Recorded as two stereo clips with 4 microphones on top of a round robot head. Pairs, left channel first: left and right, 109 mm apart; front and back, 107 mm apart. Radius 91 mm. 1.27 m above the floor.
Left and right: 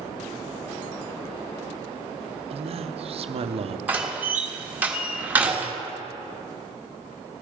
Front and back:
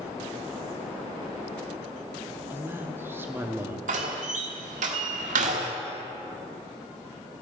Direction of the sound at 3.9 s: 165° right.